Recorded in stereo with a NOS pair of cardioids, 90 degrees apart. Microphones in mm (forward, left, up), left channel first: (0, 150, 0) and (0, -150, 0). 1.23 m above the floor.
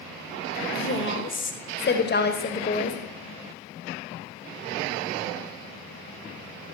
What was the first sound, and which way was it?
A woman speaking, 45° left.